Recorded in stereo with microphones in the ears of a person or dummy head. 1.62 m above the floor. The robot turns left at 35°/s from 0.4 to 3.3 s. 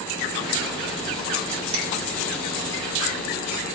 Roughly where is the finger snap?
Right.